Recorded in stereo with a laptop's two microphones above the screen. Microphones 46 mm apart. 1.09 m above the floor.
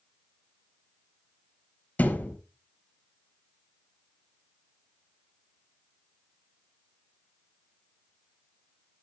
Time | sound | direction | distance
2.0 | a thud | 40° left (ahead or behind) | 3.5 m